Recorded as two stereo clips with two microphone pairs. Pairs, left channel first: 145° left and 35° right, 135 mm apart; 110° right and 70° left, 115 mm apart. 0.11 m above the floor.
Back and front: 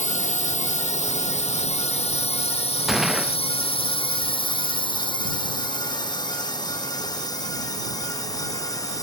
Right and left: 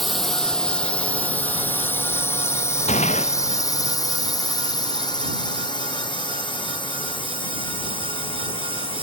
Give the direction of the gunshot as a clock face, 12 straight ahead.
4 o'clock.